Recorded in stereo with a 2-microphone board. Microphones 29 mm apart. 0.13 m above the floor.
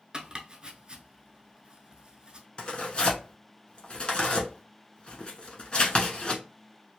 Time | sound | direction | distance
0.1 | chopping | 30° right (ahead or behind) | 0.6 m
2.6 | tearing paper | 35° left (ahead or behind) | 1.0 m